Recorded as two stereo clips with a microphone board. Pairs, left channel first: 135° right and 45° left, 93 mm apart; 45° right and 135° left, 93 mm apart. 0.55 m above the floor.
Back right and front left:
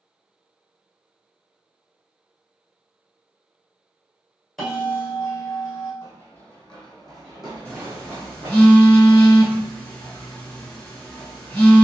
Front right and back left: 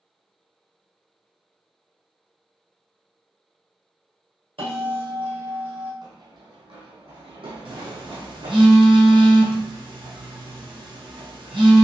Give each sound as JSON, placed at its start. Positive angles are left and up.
{"t": 4.6, "sound": "a bell", "azimuth_deg": 135, "distance_m": 1.8}
{"t": 6.0, "sound": "running footsteps", "azimuth_deg": 165, "distance_m": 1.3}
{"t": 7.7, "sound": "a phone buzzing", "azimuth_deg": 150, "distance_m": 1.5}